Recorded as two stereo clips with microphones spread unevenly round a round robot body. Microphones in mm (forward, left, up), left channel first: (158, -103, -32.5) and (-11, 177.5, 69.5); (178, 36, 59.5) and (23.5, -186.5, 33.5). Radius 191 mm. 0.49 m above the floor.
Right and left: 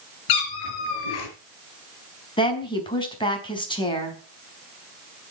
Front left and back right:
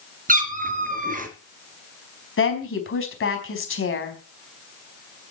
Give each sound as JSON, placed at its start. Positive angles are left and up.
{"t": 0.3, "sound": "a cat meowing", "azimuth_deg": -65, "distance_m": 3.5}
{"t": 2.4, "sound": "a woman speaking", "azimuth_deg": 15, "distance_m": 4.5}